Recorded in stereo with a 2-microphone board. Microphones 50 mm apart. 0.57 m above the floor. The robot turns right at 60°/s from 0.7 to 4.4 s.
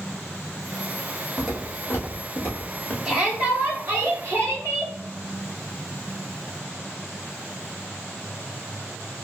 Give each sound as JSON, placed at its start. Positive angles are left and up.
{"t": 1.4, "sound": "footsteps", "side_deg": -10, "distance_m": 1.2}
{"t": 3.0, "sound": "a shout", "azimuth_deg": 180, "distance_m": 1.5}